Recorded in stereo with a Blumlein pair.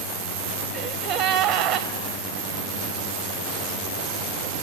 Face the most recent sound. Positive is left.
turn(degrees=-40)